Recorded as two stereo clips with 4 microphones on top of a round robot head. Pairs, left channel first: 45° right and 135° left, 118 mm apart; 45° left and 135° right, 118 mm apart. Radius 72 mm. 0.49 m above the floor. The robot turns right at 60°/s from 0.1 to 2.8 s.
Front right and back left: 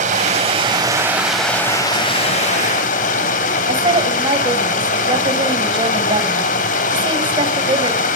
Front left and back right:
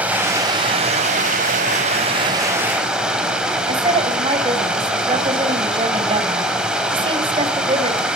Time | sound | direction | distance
0.0 | running water | 150° left | 3 m
3.7 | a woman speaking | straight behind | 2.5 m